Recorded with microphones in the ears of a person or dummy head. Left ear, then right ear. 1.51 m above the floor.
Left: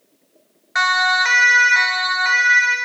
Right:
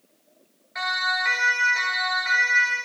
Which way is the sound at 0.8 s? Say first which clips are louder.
Left 8 dB; 45° left (ahead or behind).